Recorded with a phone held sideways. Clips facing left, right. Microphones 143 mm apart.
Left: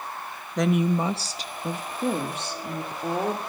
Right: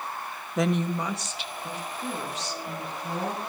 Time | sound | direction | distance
0.6 | a woman speaking | 5° right (ahead or behind) | 0.7 m